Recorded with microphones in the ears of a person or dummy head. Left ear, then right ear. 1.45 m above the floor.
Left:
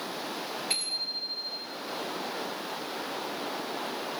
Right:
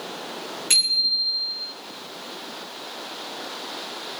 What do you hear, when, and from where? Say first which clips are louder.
0.7 s a bicycle bell: right 13 dB; 55° right (ahead or behind), 3.5 m